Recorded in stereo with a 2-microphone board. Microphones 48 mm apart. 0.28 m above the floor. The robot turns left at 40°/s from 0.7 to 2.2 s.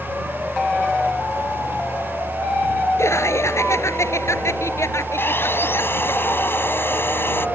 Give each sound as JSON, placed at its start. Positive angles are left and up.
{"t": 3.0, "sound": "laughter", "side_deg": 75}
{"t": 5.2, "sound": "sawing", "side_deg": 50}